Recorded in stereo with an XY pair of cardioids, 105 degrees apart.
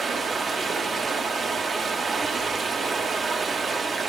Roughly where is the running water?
Ahead right.